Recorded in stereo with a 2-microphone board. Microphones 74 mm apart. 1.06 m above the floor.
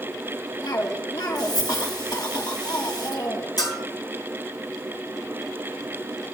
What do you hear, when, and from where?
0.6 s a cough: 65° left (ahead or behind), 2.5 m
3.6 s a bell: 60° left (ahead or behind), 4.5 m